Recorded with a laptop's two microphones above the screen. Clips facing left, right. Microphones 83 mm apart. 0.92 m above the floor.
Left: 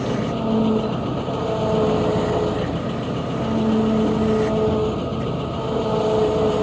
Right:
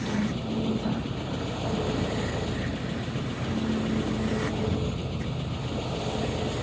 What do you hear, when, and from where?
0.0 s an engine running: 70° left (ahead or behind)